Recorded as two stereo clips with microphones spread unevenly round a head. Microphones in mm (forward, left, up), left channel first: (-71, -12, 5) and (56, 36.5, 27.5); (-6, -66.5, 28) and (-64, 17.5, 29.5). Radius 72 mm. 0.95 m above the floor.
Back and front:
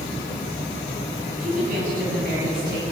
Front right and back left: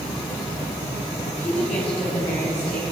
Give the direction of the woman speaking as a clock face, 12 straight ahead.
1 o'clock.